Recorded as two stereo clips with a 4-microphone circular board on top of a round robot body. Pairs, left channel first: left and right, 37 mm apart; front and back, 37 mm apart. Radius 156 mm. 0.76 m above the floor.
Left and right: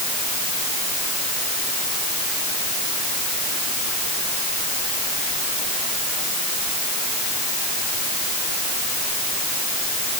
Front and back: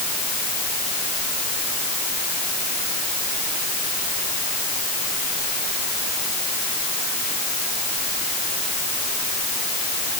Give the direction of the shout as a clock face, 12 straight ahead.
No shout in this recording.